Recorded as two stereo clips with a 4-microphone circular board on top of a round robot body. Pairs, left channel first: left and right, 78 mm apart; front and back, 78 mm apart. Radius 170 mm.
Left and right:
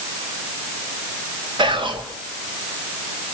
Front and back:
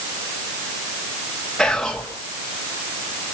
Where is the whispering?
85° right, 3 m.